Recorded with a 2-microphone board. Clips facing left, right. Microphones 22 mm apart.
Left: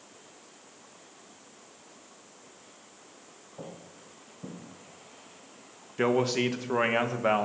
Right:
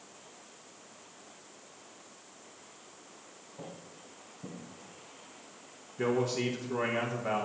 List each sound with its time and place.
3.6 s footsteps: 35° left (ahead or behind), 2.5 m; by 4.6 s 25° left (ahead or behind), 2.5 m
6.0 s a man speaking: 65° left (ahead or behind), 1.5 m